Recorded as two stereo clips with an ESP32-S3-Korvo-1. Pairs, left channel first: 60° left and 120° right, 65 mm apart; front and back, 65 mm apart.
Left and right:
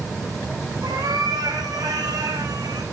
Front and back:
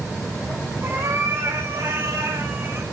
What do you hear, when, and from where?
0.8 s a cat meowing: 130° right, 7 m; by 2.8 s 125° right, 4.5 m